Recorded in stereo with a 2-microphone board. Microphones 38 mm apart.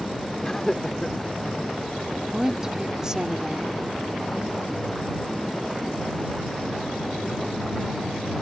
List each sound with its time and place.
0.4 s laughter: 15° left (ahead or behind); by 1.7 s 5° left (ahead or behind)
2.3 s a woman speaking: 15° right (ahead or behind)